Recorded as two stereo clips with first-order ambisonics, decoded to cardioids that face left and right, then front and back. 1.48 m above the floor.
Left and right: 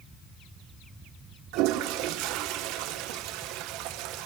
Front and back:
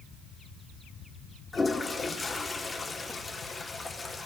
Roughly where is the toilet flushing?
Right.